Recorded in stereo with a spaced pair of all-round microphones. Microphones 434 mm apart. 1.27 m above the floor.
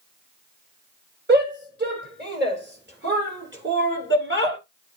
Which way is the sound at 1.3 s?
25° right (ahead or behind).